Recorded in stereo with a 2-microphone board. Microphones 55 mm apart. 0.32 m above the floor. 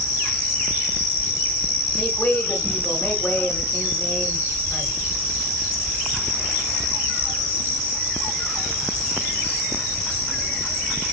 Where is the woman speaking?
10° left (ahead or behind), 1.3 m.